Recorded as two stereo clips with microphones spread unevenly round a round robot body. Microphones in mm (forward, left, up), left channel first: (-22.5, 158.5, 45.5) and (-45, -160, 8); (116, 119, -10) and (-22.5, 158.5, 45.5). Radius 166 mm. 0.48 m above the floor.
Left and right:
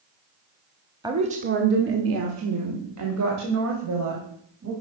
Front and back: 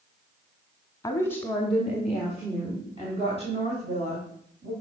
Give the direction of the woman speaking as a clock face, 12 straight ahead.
1 o'clock.